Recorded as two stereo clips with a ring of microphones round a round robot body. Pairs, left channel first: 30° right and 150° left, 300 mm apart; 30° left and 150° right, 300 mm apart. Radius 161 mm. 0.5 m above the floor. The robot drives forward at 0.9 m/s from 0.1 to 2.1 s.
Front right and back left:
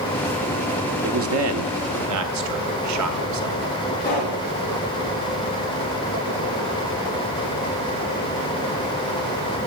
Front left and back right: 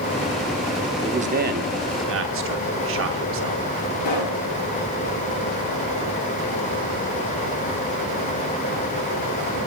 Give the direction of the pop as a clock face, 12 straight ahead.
11 o'clock.